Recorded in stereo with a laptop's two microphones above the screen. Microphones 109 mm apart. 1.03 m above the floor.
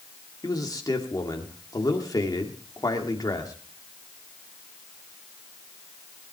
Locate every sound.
0.4 s a man speaking: 35° left (ahead or behind), 2 m